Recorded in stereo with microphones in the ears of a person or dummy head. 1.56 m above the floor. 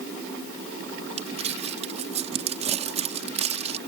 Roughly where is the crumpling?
Right.